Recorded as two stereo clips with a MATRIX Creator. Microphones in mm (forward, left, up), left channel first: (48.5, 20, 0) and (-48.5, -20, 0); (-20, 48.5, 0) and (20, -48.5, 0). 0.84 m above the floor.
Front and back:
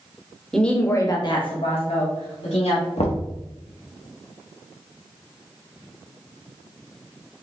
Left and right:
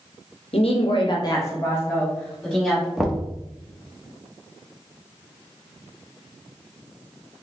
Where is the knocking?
15° left, 0.7 m.